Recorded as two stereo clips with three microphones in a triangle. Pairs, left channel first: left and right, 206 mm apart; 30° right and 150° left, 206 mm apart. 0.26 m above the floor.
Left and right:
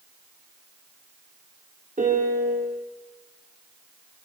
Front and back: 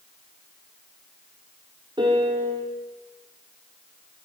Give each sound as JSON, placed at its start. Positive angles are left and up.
{"t": 2.0, "sound": "a piano", "azimuth_deg": -140, "distance_m": 3.0}